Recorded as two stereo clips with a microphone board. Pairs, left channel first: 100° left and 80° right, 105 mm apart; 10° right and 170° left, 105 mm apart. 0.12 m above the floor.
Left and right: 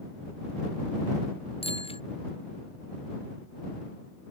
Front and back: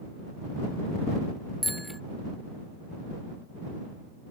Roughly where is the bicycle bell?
Left.